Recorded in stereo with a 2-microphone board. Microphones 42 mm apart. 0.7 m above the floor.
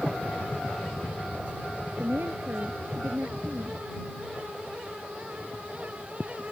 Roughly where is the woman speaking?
Right.